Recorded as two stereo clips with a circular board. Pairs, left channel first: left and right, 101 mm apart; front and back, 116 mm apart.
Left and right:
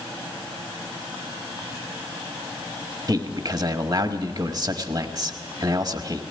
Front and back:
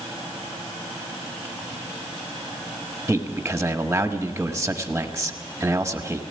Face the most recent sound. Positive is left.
turn(degrees=-115)